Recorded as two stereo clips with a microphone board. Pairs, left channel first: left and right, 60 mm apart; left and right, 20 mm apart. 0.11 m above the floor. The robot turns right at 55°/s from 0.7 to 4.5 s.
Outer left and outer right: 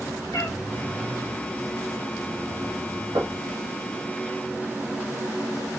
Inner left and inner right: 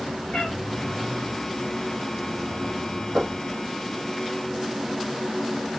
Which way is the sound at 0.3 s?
80° left.